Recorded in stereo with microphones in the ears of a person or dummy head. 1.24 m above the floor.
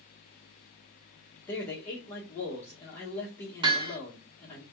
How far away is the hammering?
About 1.1 m.